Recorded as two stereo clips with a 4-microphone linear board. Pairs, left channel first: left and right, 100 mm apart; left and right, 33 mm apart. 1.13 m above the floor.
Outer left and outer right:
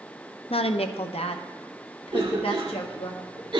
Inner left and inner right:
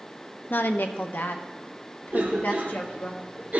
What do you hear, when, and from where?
0.5 s a woman speaking: 70° left (ahead or behind), 0.6 m
2.1 s a cough: 55° right (ahead or behind), 3 m